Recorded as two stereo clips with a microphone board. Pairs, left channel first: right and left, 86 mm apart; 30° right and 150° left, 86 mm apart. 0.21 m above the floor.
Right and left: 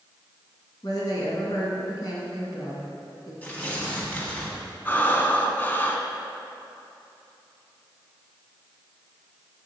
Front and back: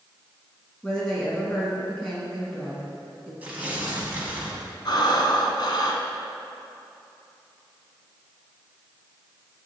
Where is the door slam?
No door slam in this recording.